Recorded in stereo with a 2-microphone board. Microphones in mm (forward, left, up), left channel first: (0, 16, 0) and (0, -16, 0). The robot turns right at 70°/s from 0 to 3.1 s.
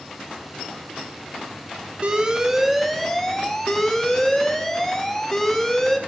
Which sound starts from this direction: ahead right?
An alarm, at 2.0 s.